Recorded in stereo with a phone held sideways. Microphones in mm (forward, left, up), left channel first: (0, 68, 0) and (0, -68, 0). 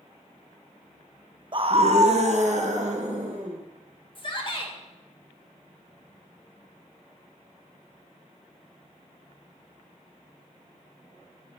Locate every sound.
1.5 s a scream: 35° right (ahead or behind), 0.5 m; by 3.6 s 60° right (ahead or behind), 2.5 m
4.2 s a shout: 40° left (ahead or behind), 1.7 m